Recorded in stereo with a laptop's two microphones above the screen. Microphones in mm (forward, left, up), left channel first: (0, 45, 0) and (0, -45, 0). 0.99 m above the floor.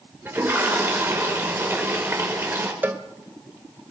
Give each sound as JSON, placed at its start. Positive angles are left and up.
{"t": 0.2, "sound": "a toilet flushing", "side_deg": -25, "distance_m": 5.0}
{"t": 2.8, "sound": "a cowbell", "side_deg": -20, "distance_m": 1.5}